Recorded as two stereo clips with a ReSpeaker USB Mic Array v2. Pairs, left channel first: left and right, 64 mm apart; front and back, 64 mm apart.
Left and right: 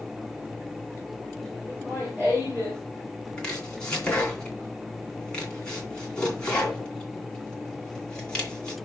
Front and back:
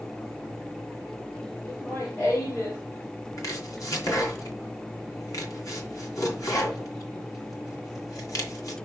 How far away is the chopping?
About 3 m.